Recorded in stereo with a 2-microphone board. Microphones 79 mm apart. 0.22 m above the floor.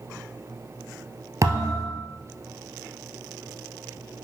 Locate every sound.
1.4 s a thud: 45° right (ahead or behind), 1.5 m